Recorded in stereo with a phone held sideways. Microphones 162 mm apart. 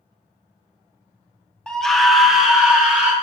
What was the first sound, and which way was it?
A scream, 5° left (ahead or behind).